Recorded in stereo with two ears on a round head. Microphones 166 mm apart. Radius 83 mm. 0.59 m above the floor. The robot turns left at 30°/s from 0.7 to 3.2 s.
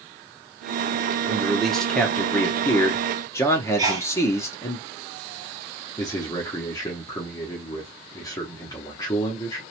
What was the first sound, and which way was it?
A man speaking, 5° right (ahead or behind).